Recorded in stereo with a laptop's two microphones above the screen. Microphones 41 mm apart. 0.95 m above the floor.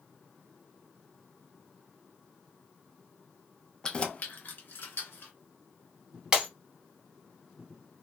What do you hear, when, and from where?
3.8 s keys jangling: 15° left (ahead or behind), 0.6 m; by 5.3 s 65° left (ahead or behind), 1.2 m
6.3 s breaking glass: 20° right (ahead or behind), 0.8 m